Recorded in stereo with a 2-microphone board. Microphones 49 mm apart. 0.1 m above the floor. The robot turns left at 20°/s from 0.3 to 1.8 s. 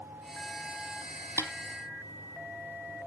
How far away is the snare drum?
About 1.0 m.